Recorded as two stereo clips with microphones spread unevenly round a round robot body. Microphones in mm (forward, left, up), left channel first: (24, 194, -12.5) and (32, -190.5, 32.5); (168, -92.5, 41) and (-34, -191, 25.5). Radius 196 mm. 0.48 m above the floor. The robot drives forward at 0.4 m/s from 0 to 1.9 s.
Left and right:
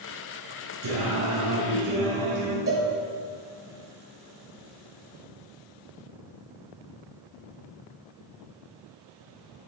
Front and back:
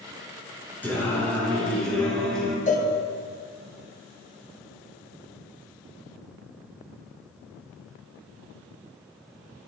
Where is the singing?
55° right, 4.5 m; by 2.6 s 60° right, 4.5 m.